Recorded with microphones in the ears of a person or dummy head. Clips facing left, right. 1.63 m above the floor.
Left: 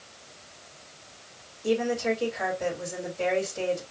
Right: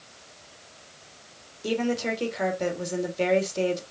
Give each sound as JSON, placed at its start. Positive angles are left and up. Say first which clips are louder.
{"t": 1.6, "sound": "a woman speaking", "louder": "left 1 dB", "side_deg": -45, "distance_m": 1.8}